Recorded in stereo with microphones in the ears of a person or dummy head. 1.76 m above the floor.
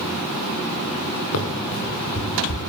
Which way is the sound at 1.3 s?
80° left.